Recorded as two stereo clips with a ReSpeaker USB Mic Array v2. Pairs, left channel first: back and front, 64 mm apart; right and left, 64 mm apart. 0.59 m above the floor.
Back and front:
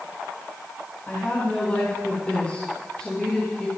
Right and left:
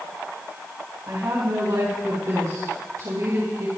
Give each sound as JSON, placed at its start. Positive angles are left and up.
{"t": 1.1, "sound": "a woman speaking", "azimuth_deg": 120, "distance_m": 4.5}